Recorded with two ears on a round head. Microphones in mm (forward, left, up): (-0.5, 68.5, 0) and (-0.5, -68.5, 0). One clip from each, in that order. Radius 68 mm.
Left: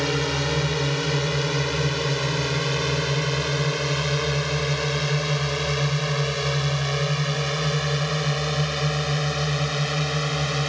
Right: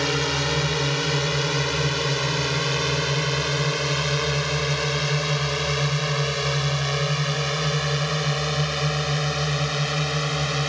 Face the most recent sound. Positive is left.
turn(degrees=-5)  # may be behind; listen again after turning